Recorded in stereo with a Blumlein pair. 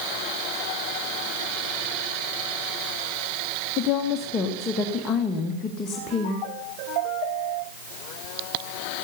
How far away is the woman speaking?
About 1.6 m.